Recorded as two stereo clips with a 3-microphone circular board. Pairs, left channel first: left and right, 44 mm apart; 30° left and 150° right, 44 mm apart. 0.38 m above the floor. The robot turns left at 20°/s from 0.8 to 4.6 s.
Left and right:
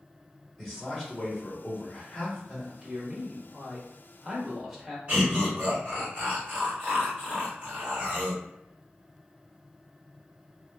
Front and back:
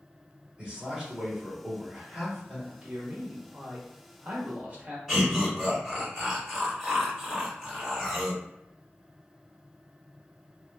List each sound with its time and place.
0.6 s a man speaking: 165° left, 1.2 m; by 2.7 s 130° left, 1.2 m
2.8 s a man speaking: 140° right, 1.0 m; by 5.0 s 175° right, 1.0 m
5.1 s laughter: 55° right, 1.7 m